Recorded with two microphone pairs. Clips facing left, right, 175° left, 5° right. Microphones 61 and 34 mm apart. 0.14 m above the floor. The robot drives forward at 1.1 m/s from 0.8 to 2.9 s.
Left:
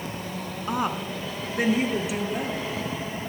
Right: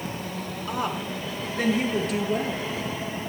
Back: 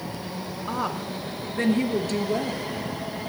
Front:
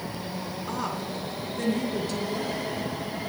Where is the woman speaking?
125° left, 1.3 m; by 2.6 s 165° left, 2.5 m.